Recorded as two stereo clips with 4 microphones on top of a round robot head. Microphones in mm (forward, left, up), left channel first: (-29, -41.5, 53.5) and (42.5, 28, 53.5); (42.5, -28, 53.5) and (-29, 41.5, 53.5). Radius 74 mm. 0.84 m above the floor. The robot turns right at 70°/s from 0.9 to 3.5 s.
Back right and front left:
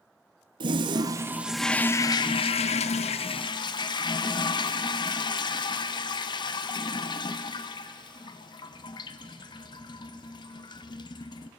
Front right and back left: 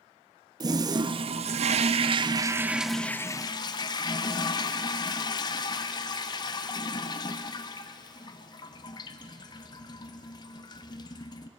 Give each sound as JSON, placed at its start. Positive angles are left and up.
{"t": 0.6, "sound": "a toilet flushing", "azimuth_deg": 85, "distance_m": 0.7}